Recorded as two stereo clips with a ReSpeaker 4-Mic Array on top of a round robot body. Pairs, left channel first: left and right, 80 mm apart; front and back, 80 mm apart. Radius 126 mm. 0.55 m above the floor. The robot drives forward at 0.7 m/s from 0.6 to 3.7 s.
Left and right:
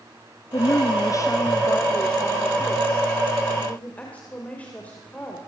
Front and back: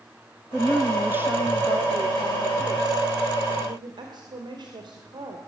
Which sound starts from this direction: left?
A woman speaking, at 0.5 s.